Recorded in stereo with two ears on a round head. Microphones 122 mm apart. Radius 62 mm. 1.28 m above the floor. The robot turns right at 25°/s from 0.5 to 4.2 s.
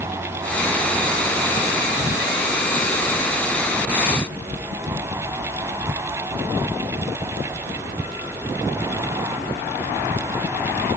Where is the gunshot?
No gunshot in this recording.